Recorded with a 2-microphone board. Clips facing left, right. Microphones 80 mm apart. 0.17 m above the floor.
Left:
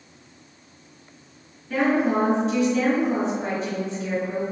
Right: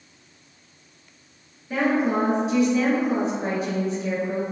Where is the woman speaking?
10° right (ahead or behind), 2.0 m.